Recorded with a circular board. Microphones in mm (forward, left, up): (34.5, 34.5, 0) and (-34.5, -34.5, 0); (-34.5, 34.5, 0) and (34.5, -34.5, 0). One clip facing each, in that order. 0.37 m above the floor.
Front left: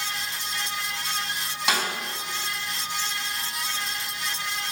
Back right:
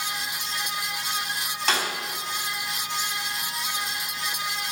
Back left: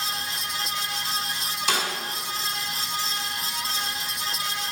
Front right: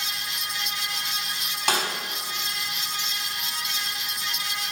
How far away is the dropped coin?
I don't hear a dropped coin.